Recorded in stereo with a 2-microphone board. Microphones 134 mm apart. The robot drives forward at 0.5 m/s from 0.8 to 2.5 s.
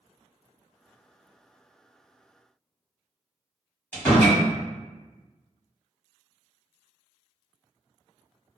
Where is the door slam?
15° left (ahead or behind), 1.6 m.